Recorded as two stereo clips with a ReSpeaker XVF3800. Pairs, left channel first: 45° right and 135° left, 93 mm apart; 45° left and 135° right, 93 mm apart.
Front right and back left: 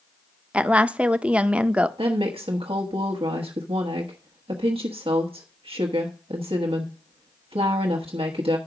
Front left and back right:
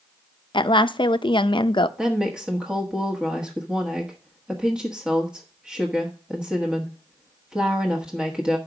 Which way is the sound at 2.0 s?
145° left.